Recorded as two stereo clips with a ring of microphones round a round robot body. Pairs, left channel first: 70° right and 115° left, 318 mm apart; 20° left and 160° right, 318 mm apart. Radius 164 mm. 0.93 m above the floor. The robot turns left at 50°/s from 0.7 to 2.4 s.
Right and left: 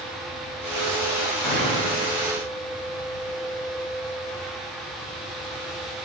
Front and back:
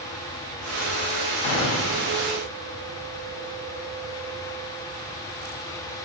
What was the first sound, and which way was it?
A gunshot, 25° left.